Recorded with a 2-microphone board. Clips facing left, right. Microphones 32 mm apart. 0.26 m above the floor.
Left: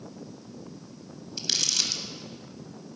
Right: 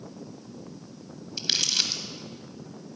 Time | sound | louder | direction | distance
1.4 | crumpling | right 2 dB | 30° right (ahead or behind) | 1.1 m